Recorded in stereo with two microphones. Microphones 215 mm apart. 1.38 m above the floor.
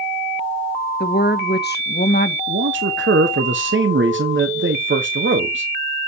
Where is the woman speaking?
50° left (ahead or behind), 1.1 m.